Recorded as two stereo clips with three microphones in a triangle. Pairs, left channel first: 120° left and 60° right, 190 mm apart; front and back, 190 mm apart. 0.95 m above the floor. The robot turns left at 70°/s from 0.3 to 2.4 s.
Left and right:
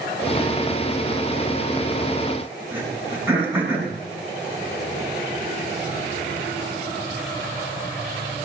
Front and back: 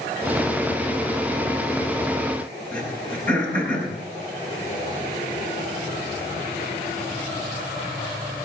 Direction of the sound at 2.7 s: 140° right.